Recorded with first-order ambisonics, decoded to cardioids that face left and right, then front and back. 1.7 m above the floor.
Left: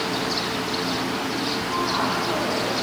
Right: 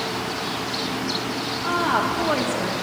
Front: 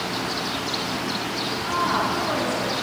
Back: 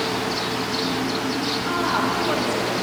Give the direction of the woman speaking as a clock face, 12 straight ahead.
3 o'clock.